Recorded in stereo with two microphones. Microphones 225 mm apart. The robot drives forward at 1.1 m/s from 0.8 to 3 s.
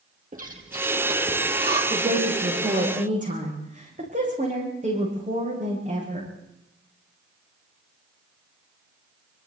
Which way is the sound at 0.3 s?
35° right (ahead or behind).